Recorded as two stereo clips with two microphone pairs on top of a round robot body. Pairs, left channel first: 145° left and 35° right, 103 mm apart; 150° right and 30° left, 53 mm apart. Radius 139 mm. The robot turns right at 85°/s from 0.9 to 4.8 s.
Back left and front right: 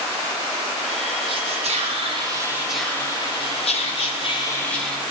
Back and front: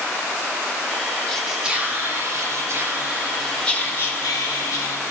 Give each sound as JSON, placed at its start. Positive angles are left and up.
{"t": 1.3, "sound": "whispering", "azimuth_deg": -70, "distance_m": 2.0}